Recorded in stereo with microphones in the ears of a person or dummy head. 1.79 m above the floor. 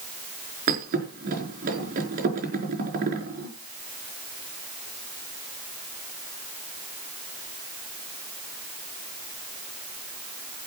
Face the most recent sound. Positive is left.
turn(degrees=-50)  # may be behind; listen again after turning